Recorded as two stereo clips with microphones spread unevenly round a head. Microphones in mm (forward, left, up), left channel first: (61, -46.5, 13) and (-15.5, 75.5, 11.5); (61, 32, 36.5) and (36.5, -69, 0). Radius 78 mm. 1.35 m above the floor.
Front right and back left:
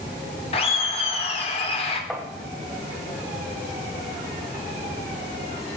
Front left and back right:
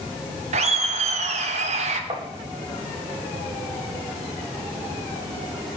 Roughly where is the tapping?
Behind right.